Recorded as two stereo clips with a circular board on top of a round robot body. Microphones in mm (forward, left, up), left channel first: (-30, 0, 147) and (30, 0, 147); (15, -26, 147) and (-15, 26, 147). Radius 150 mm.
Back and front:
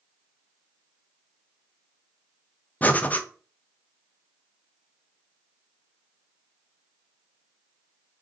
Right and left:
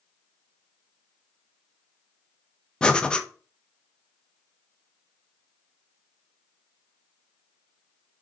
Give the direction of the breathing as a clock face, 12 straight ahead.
4 o'clock.